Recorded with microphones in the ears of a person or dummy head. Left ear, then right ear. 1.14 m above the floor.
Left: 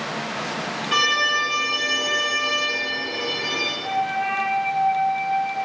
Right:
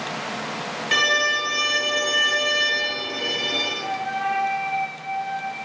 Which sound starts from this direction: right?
A violin, at 0.9 s.